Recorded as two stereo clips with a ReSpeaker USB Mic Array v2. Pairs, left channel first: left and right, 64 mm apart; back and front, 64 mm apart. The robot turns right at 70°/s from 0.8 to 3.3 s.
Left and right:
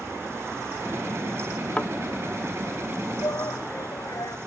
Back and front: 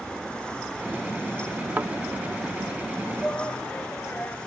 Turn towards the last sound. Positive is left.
turn(degrees=110)